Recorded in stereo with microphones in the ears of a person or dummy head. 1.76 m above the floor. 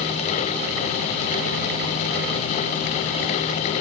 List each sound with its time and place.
Only background noise.